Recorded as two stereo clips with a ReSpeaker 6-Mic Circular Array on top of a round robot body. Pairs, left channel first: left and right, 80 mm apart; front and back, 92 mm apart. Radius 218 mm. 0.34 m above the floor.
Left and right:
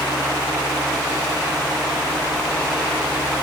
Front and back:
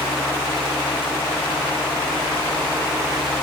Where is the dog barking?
I don't hear a dog barking.